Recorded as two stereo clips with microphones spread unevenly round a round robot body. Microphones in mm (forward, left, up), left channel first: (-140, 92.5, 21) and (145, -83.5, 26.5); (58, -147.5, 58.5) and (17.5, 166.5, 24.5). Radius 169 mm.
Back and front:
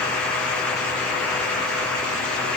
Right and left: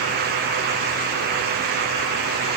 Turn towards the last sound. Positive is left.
No sound to turn to.